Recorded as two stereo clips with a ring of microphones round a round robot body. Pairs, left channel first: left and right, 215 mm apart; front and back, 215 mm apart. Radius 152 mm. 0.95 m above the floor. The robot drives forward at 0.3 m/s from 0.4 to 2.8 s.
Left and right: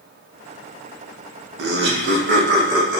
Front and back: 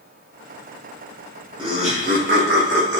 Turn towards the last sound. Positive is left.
turn(degrees=-145)